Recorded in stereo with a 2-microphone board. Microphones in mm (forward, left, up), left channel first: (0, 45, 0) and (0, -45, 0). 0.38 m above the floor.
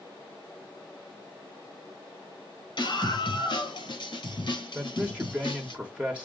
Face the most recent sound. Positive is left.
turn(degrees=-10)  # may be behind; listen again after turning